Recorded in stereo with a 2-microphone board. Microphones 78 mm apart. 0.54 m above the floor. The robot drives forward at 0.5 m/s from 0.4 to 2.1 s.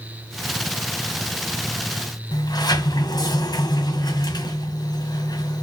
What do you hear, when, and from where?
2.3 s a sliding door: 55° left (ahead or behind), 2 m